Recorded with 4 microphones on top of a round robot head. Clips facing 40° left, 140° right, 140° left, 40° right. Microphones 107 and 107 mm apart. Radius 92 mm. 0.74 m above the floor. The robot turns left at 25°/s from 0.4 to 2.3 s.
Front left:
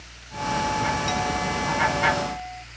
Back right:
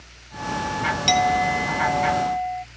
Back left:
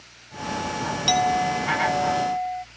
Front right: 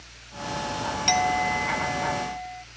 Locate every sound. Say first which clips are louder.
1.1 s a clink: back right 6 dB, back left 3 dB; 140° right; by 2.6 s 175° right